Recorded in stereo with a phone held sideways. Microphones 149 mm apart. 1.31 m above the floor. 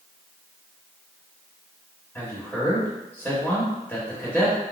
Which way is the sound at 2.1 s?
10° left (ahead or behind).